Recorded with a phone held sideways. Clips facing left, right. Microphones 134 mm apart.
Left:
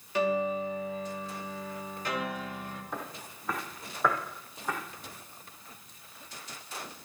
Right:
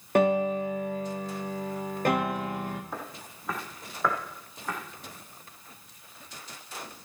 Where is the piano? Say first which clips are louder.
Right 5 dB; 55° right (ahead or behind), 1.1 m.